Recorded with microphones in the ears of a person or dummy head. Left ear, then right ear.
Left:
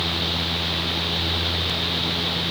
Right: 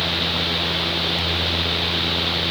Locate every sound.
Only background noise.